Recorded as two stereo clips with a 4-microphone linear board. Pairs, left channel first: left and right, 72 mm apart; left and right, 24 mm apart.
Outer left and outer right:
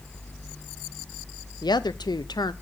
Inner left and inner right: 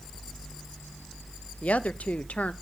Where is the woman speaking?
75° left (ahead or behind), 0.5 m.